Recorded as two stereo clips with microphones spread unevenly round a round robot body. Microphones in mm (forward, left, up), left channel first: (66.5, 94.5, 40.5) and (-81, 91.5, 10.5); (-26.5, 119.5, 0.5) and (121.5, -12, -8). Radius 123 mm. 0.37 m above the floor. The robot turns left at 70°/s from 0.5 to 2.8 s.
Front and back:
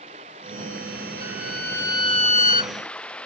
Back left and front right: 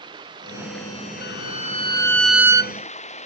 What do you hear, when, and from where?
0.0 s running water: 115° right; by 3.3 s 85° left
1.2 s a violin: 125° left; by 2.7 s 15° left